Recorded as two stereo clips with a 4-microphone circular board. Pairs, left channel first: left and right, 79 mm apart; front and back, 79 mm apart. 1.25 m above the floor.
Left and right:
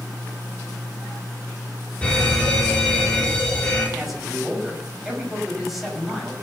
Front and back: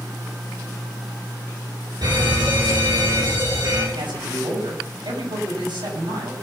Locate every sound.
2.0 s a fire alarm: 165° left, 6.5 m
4.0 s a man speaking: 175° right, 6.5 m